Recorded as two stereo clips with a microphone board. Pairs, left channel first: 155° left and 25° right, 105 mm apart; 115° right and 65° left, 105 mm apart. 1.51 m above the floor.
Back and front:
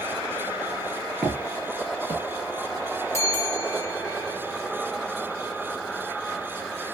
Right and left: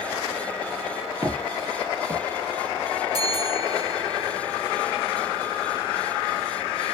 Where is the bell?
105° left, 1.8 m.